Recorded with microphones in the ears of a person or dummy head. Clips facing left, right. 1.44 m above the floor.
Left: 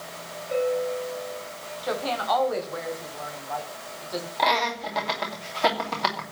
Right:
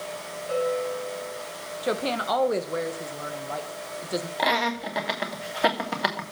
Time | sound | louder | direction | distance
0.5 | a bell | left 1 dB | 75° right (ahead or behind) | 7 m
1.8 | a woman speaking | right 1 dB | 40° right (ahead or behind) | 1.6 m
4.4 | laughter | left 2 dB | 15° right (ahead or behind) | 2.5 m